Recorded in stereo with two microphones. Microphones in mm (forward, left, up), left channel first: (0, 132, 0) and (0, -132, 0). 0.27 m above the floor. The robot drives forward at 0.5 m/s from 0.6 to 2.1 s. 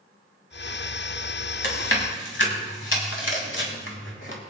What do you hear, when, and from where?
1.6 s chewing: 50° left (ahead or behind), 2.5 m